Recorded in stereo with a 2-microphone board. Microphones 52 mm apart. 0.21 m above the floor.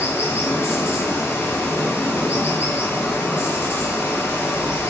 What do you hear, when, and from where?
0.0 s running water: 60° left (ahead or behind), 2.5 m